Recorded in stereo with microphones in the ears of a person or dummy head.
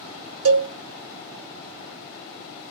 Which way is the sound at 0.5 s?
75° right (ahead or behind).